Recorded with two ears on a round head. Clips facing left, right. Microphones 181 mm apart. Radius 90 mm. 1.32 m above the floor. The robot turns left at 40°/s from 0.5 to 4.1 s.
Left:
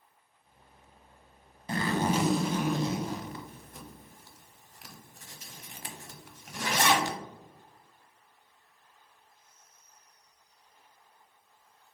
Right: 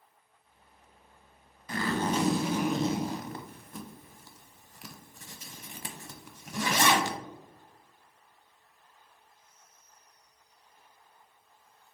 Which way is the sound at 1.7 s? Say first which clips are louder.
Left 1 dB; 25° left (ahead or behind).